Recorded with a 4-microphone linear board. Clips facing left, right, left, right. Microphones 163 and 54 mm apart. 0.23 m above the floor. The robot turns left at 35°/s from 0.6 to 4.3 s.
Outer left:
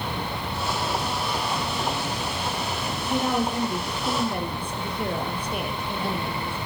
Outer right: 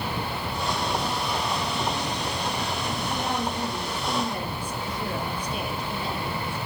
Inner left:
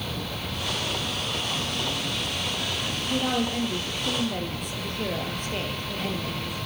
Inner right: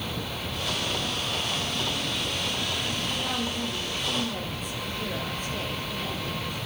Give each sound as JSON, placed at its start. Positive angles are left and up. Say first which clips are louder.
{"t": 3.1, "sound": "a woman speaking", "louder": "outer left 7 dB, inner left 4 dB", "azimuth_deg": 100, "distance_m": 4.5}